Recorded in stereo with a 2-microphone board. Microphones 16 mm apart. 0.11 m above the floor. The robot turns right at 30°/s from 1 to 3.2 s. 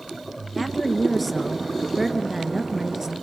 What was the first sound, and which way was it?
A woman speaking, 160° left.